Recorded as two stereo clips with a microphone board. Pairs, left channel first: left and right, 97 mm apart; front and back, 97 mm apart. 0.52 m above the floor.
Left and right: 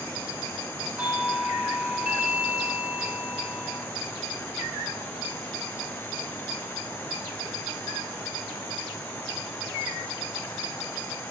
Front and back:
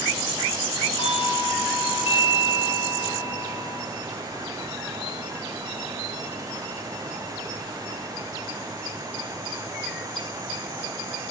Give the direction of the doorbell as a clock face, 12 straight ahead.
1 o'clock.